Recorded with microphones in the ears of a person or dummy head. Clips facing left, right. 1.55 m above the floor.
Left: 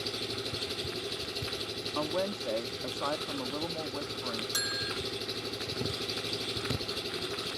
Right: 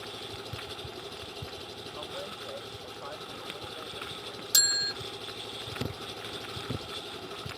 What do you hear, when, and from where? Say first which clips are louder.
0.0 s an engine running: left 5 dB; 30° left (ahead or behind)
1.9 s a woman speaking: left 11 dB; 75° left (ahead or behind)
4.5 s a bell: left 4 dB; 30° right (ahead or behind)